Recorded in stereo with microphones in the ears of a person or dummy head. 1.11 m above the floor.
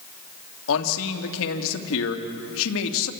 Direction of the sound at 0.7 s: 70° left (ahead or behind).